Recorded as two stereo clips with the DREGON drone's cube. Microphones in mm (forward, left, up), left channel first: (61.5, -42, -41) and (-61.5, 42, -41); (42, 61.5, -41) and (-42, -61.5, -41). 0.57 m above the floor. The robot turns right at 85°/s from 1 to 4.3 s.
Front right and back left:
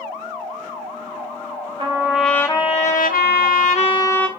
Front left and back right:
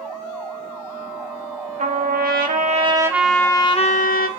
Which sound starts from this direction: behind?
A trumpet, at 1.8 s.